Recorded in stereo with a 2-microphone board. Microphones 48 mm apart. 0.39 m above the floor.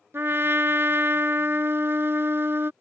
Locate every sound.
0.1 s a trumpet: 55° right (ahead or behind)